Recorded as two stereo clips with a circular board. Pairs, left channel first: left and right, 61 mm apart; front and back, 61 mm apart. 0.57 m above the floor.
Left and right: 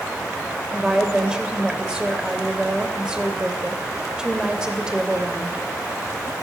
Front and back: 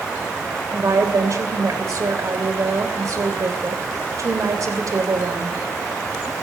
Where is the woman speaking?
165° right, 2.5 m.